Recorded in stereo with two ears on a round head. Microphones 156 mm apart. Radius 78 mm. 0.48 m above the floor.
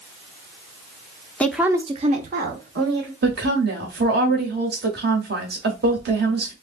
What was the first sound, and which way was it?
A woman speaking, 10° left (ahead or behind).